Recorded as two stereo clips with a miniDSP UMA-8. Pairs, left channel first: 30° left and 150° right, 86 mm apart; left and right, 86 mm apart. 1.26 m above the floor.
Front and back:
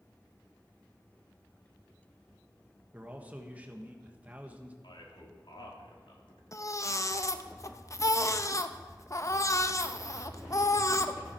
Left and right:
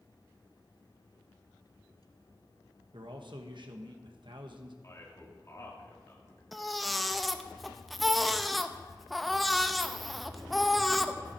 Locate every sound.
2.9 s a man speaking: 80° right, 1.4 m
4.8 s a man speaking: 40° left, 2.5 m
6.5 s a baby crying: straight ahead, 0.6 m